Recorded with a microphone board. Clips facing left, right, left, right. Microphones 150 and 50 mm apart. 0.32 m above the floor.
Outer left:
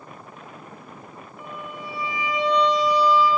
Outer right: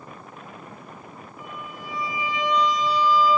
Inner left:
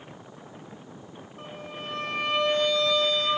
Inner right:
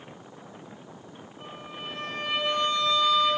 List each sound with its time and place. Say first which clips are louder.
1.4 s a violin: outer left 3 dB, inner left 1 dB; 70° left (ahead or behind), 7 m